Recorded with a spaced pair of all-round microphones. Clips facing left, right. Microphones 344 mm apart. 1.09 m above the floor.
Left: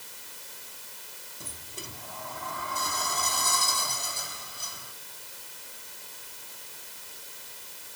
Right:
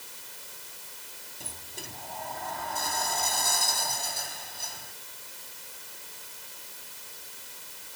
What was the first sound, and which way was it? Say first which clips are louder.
A sliding door: left 1 dB; 5° left (ahead or behind).